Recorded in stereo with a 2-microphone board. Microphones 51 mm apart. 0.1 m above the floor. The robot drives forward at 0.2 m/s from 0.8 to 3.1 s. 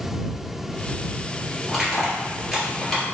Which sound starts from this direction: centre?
Crushing, at 1.7 s.